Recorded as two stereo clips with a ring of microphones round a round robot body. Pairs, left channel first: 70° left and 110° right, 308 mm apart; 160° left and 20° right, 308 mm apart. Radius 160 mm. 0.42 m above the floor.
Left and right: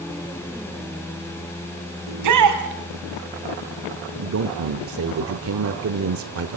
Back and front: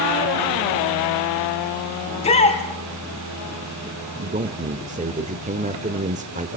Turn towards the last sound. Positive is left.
turn(degrees=-85)